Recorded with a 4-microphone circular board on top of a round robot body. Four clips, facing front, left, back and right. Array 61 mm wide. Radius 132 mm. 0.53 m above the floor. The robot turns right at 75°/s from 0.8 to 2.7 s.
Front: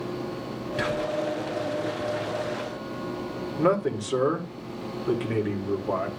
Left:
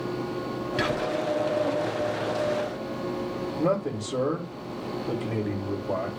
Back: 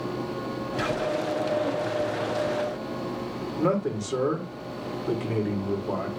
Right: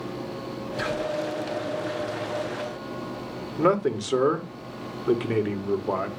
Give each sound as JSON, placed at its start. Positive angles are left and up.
{"t": 0.8, "sound": "whispering", "azimuth_deg": 75, "distance_m": 6.5}
{"t": 3.6, "sound": "a man speaking", "azimuth_deg": -75, "distance_m": 1.9}